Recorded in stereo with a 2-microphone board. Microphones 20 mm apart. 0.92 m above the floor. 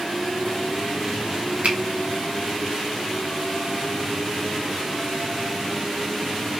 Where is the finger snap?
70° right (ahead or behind), 0.7 m.